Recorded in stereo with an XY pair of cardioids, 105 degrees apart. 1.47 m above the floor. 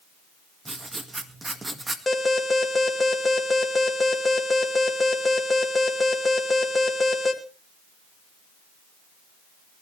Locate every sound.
0.7 s writing: 25° right, 2 m
2.1 s an alarm: 25° left, 2.5 m